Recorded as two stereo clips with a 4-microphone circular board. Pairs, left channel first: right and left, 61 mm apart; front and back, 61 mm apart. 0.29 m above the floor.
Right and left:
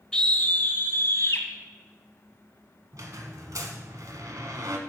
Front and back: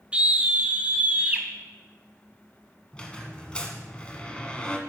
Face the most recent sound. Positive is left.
turn(degrees=70)